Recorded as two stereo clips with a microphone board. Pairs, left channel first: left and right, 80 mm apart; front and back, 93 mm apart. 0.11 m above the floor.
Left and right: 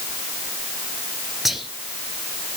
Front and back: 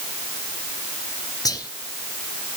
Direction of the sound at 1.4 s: 5° right.